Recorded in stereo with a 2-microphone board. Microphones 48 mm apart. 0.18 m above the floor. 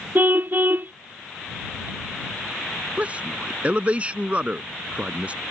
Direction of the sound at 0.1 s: 40° right (ahead or behind).